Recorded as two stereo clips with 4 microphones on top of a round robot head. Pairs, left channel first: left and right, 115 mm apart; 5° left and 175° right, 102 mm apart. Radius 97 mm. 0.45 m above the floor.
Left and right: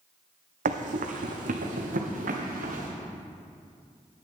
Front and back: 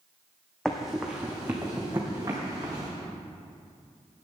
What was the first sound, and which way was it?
Running footsteps, 85° right.